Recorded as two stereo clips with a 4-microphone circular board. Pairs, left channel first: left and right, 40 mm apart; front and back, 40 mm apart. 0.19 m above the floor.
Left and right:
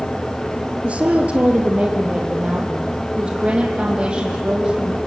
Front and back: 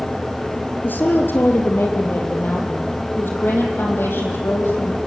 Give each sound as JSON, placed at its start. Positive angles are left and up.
{"t": 0.8, "sound": "a woman speaking", "azimuth_deg": -35, "distance_m": 3.0}